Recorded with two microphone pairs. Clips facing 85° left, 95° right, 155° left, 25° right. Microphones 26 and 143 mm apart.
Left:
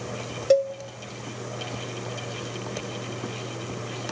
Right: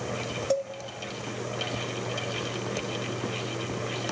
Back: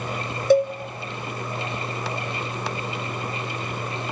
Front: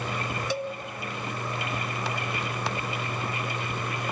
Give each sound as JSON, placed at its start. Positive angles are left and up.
{"t": 0.5, "sound": "a cowbell", "azimuth_deg": 125, "distance_m": 0.5}